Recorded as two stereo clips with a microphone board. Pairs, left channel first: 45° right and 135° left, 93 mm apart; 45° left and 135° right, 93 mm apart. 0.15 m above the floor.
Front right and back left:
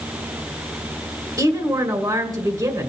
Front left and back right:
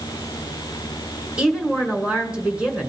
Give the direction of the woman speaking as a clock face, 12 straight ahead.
7 o'clock.